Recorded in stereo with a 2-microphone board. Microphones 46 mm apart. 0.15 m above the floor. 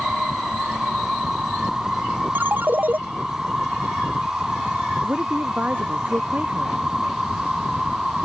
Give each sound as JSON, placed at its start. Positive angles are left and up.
{"t": 0.0, "sound": "an insect", "side_deg": -10}
{"t": 2.4, "sound": "a ringtone", "side_deg": -45}
{"t": 5.0, "sound": "a woman speaking", "side_deg": -35}